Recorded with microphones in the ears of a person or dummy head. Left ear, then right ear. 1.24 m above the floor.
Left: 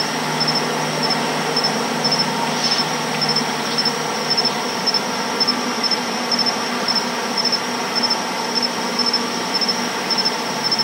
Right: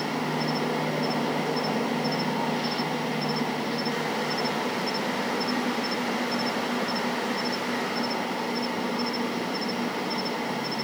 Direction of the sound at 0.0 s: 65° left (ahead or behind).